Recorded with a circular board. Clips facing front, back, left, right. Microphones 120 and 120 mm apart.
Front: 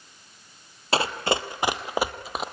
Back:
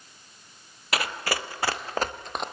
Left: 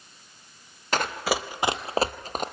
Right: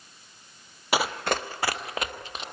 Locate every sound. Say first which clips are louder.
0.9 s running footsteps: front 5 dB, even; 20° right, 1.3 m; by 2.4 s 85° left, 1.7 m